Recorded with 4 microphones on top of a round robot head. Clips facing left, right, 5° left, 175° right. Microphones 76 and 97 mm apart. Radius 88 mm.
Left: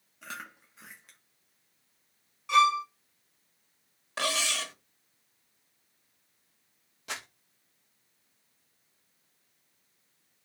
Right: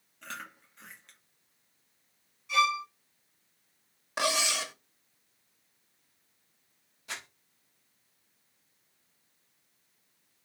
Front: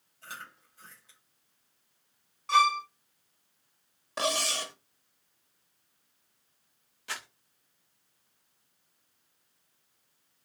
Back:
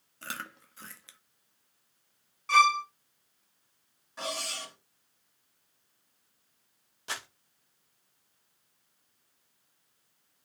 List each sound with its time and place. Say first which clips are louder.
0.2 s chewing: even, back 4 dB; 175° left, 0.7 m
2.5 s a violin: left 4 dB, back 1 dB; 90° left, 2.5 m
4.2 s cutlery clinking: right 2 dB, front 7 dB; 15° right, 0.7 m
7.1 s crumpling: left 2 dB, back 1 dB; 125° left, 0.8 m